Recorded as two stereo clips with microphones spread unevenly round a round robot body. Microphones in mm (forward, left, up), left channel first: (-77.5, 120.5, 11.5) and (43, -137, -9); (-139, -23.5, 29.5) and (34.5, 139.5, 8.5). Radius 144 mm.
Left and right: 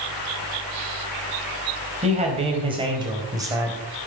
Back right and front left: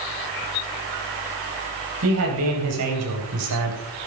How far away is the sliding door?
I don't hear a sliding door.